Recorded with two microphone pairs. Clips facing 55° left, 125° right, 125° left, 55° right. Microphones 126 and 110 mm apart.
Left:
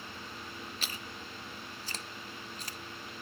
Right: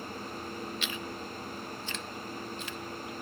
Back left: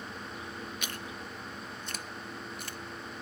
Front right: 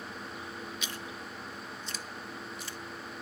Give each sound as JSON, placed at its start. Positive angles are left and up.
{"t": 0.8, "sound": "chewing", "azimuth_deg": 105}